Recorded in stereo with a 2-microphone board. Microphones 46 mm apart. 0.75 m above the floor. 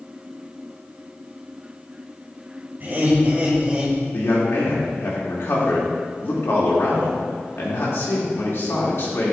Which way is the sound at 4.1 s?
60° left (ahead or behind).